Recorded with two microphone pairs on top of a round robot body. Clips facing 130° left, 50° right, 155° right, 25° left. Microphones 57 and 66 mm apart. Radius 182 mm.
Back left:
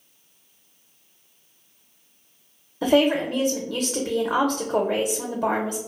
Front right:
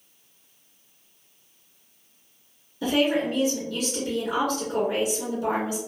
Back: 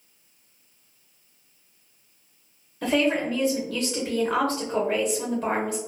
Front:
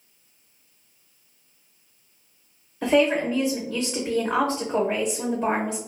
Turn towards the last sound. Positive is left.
turn(degrees=110)